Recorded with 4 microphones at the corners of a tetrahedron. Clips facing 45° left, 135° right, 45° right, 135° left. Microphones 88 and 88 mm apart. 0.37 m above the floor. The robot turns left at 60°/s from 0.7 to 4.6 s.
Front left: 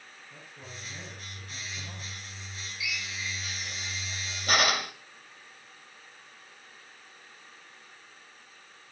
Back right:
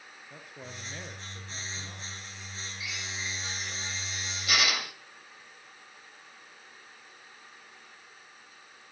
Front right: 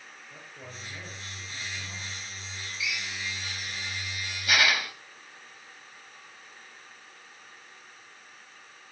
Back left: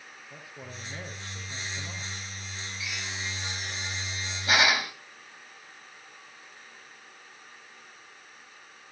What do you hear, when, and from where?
0.3 s a man speaking: 145° right, 6 m; by 2.1 s 130° left, 6 m
2.8 s a drill: straight behind, 2 m; by 4.9 s 75° left, 2 m